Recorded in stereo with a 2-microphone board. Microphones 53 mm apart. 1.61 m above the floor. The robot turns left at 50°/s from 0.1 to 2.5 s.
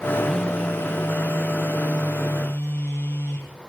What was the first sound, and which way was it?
A phone buzzing, 170° left.